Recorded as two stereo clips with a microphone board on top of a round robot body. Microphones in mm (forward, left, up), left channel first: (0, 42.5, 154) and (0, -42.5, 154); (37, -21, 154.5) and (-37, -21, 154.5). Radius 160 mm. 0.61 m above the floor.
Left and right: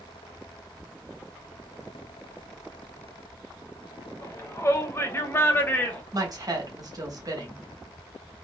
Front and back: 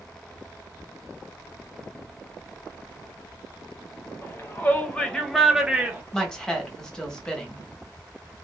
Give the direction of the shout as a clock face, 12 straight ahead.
10 o'clock.